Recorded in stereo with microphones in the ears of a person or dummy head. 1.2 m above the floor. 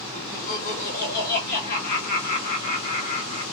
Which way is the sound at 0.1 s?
55° left (ahead or behind).